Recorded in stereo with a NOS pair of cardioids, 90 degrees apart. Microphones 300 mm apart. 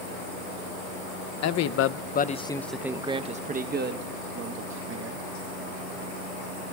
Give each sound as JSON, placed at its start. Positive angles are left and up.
{"t": 1.4, "sound": "a man speaking", "azimuth_deg": 70, "distance_m": 0.7}